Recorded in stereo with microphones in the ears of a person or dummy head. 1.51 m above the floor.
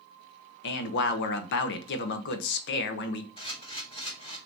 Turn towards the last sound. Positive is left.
turn(degrees=30)  # may be behind; listen again after turning